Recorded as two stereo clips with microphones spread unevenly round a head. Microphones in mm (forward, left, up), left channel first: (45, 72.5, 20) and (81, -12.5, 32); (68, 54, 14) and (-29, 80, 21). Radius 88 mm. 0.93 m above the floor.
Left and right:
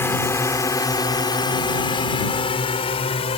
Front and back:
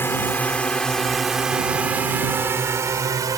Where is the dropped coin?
No dropped coin in this recording.